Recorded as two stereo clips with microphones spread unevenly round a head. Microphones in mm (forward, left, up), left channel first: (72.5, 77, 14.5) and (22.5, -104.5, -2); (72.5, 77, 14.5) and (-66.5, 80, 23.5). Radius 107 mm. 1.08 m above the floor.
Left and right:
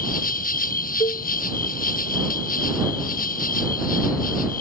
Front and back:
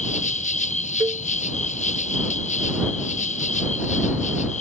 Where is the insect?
30° left.